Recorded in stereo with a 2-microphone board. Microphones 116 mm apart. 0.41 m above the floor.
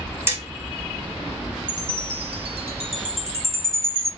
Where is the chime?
60° right (ahead or behind), 1.4 m.